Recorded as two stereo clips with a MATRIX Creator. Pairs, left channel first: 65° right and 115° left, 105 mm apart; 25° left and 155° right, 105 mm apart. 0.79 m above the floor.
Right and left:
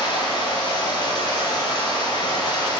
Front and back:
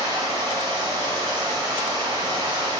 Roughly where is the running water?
Right.